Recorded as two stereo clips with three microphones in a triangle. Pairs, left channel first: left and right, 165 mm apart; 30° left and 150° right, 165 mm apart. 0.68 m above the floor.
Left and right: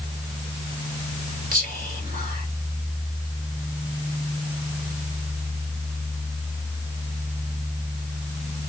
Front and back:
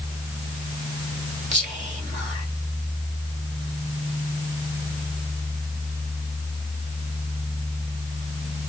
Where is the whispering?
110° right, 2.5 m.